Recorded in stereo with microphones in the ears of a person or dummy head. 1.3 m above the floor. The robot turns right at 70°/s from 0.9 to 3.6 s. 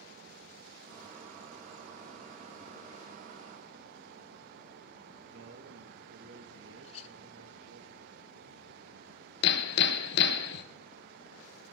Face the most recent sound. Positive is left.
turn(degrees=70)  # may be behind; listen again after turning